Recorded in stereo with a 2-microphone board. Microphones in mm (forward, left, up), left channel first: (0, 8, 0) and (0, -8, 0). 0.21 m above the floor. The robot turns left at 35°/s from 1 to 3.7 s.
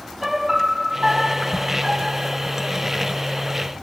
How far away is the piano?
About 0.8 m.